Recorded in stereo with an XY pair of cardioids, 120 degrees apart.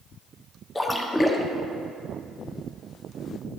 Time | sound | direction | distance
0.8 | a splash | 10° left | 1.0 m